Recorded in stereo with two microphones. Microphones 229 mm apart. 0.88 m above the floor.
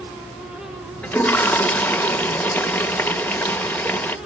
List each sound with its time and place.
1.0 s a toilet flushing: 5° left (ahead or behind), 0.8 m